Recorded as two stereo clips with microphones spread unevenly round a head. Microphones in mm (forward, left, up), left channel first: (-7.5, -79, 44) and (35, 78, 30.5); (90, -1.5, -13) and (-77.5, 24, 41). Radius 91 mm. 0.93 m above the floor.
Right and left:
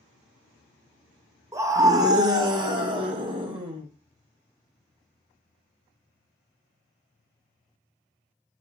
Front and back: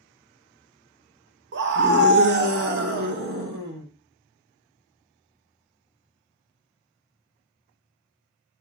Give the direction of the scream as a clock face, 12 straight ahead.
7 o'clock.